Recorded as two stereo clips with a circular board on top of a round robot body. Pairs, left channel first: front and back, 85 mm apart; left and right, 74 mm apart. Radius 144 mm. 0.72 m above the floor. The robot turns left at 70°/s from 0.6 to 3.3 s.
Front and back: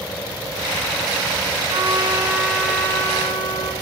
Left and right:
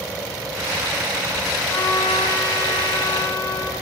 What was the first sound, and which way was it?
A trumpet, 140° left.